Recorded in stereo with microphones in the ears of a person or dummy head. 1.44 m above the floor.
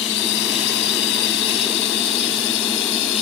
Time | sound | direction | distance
0.0 | a drone | 60° left (ahead or behind) | ?